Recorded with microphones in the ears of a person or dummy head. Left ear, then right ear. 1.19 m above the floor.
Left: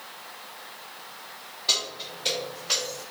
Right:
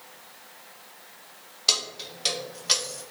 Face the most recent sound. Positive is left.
turn(degrees=-50)  # may be behind; listen again after turning